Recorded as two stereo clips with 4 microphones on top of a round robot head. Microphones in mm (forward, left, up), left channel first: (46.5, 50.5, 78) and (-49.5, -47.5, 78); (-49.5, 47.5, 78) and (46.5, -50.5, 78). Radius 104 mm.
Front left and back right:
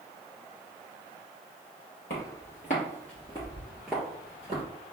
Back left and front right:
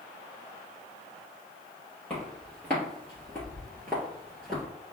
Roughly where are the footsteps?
Ahead left.